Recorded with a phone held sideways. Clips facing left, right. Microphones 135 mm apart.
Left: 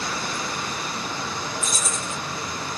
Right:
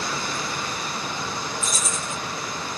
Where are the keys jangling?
50° left (ahead or behind), 2 m.